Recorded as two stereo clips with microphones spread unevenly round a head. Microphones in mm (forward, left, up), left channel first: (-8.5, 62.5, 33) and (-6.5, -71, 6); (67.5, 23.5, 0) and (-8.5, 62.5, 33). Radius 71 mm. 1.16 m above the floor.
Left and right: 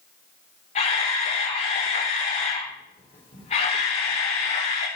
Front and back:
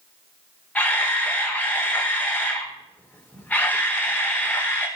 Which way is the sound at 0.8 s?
45° left.